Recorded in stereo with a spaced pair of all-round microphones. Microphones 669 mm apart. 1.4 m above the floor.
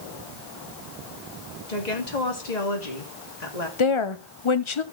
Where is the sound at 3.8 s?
45° left (ahead or behind), 0.8 m.